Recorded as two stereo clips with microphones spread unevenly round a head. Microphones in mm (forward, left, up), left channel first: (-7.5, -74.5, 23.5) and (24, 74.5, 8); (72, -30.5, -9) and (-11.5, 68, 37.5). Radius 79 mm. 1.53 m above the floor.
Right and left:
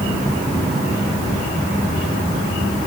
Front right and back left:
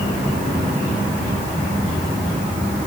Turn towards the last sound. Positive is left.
No sound to turn to.